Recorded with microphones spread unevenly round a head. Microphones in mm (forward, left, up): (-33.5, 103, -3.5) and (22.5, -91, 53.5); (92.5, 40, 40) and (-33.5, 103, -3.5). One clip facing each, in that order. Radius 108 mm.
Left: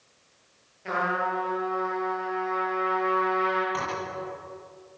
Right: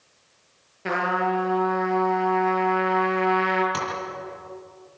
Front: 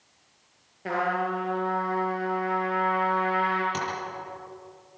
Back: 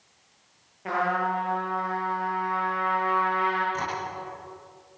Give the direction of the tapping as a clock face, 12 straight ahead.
1 o'clock.